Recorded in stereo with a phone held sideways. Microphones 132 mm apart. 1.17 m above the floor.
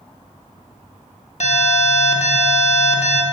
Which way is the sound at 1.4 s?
55° left (ahead or behind).